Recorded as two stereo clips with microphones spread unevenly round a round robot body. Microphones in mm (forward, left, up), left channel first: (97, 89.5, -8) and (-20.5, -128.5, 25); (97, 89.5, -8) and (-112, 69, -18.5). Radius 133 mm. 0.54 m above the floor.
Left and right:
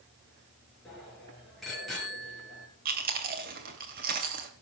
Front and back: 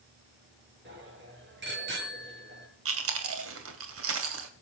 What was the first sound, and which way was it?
A bicycle bell, 150° left.